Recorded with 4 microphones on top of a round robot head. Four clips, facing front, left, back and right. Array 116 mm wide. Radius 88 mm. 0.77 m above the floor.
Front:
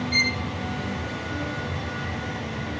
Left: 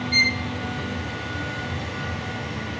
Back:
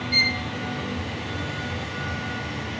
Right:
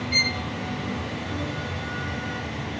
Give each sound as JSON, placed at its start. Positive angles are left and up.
{"t": 0.1, "sound": "a violin", "azimuth_deg": -75, "distance_m": 1.1}